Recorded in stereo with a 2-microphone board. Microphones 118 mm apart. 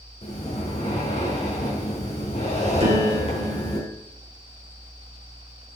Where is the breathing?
60° left (ahead or behind), 4 m.